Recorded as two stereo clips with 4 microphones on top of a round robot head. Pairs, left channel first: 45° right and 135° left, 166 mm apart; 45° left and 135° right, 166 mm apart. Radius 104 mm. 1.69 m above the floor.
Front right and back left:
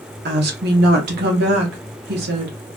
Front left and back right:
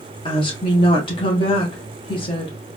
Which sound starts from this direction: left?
A woman speaking, at 0.2 s.